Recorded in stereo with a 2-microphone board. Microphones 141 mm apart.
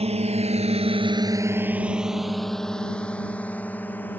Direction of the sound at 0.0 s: 45° right (ahead or behind).